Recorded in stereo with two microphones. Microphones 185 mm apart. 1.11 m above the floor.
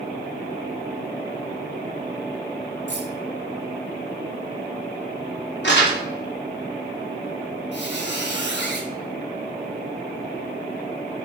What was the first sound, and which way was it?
Keys jangling, 80° right.